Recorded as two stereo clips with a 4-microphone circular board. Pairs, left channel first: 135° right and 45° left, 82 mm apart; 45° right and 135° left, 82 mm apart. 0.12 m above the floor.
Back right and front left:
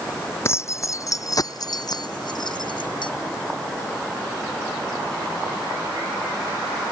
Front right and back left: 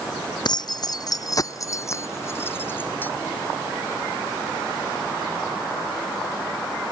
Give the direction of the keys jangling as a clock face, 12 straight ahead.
3 o'clock.